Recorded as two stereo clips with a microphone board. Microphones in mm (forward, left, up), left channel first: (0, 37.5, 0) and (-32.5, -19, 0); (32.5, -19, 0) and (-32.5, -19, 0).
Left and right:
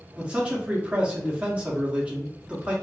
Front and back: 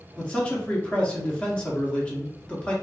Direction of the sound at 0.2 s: 60° right.